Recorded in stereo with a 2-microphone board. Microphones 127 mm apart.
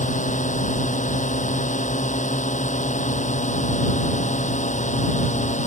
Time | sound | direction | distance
0.0 | a drone | 70° left (ahead or behind) | ?